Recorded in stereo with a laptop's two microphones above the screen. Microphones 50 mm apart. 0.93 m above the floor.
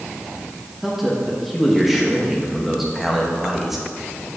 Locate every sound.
0.8 s a man speaking: 5° right (ahead or behind), 1.1 m